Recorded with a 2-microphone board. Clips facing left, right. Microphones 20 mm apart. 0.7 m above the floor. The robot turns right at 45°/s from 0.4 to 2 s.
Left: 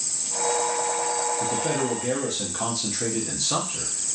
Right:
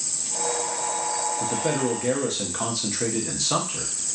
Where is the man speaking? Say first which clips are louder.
Even; 15° right (ahead or behind), 0.6 m; by 3.9 s 20° right (ahead or behind), 0.6 m.